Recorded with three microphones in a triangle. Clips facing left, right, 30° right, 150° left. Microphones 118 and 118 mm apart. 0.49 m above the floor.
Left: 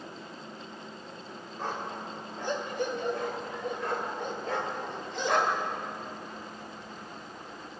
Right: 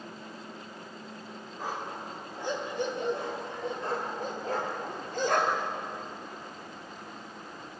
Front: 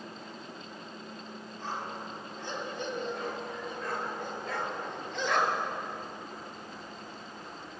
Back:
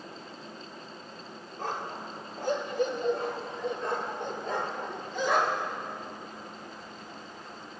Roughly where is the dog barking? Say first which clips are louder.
Left 1 dB, back 3 dB; behind.